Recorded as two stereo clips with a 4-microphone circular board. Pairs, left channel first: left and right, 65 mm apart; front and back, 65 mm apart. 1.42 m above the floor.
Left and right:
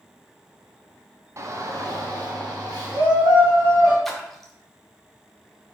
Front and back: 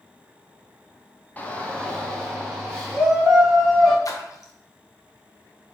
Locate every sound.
1.4 s a shout: 60° right, 0.6 m; by 4.0 s 85° right, 1.9 m
4.0 s a splash: 5° left, 0.5 m